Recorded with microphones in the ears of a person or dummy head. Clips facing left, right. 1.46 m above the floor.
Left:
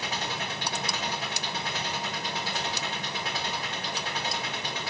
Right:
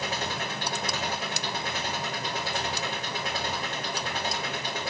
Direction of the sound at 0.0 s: 45° right (ahead or behind).